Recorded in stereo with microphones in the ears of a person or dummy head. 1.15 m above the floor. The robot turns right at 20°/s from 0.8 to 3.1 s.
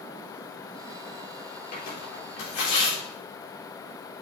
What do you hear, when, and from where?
1.7 s tearing paper: 60° left (ahead or behind), 3.5 m; by 3.0 s 85° left, 3.5 m